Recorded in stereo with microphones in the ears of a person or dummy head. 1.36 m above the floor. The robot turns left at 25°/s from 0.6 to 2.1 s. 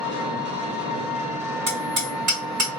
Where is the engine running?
140° right, 1.2 m; by 2.8 s straight behind, 1.2 m.